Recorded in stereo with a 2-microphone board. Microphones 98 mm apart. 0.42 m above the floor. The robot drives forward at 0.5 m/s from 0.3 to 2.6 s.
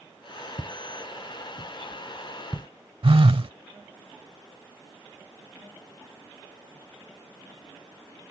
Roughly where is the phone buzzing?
Right.